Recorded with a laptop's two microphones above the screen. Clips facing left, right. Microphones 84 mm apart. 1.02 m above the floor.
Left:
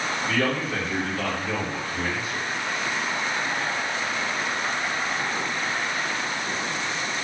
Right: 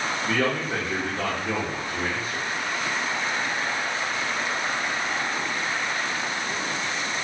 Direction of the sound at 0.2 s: 30° right (ahead or behind).